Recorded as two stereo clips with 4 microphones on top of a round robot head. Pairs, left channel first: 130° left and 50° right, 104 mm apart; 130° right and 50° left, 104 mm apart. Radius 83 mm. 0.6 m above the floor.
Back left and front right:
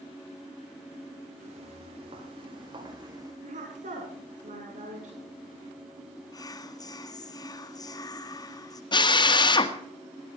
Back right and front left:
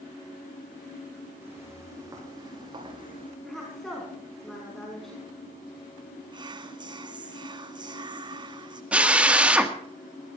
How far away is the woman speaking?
About 5 m.